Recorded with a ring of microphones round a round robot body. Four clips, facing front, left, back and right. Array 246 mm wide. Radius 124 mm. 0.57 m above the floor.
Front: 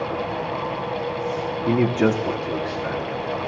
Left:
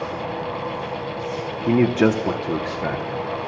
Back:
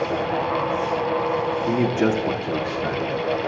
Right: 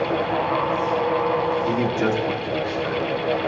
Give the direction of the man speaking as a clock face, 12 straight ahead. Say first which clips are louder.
Left 4 dB, front 3 dB; 10 o'clock.